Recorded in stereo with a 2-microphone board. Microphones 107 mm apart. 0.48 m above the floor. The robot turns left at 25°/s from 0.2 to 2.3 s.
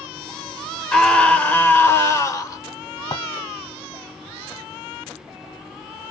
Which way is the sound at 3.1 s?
40° left (ahead or behind).